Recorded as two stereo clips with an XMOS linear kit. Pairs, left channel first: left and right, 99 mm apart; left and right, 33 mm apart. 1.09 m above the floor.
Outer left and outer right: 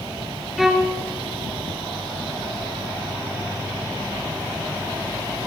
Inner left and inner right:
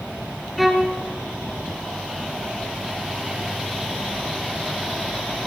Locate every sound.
0.6 s a violin: centre (ahead or behind), 3.5 m